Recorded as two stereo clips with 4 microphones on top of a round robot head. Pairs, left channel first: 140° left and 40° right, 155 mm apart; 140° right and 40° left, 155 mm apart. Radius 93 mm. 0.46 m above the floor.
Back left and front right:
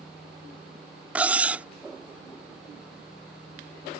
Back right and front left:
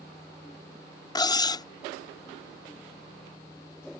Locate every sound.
1.1 s cutlery clinking: 110° right